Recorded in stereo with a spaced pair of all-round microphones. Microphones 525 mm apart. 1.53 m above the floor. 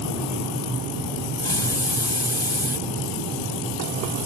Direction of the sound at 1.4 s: 65° left (ahead or behind).